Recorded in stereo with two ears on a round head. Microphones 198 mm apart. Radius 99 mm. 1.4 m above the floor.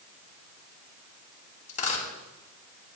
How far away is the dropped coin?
About 4 m.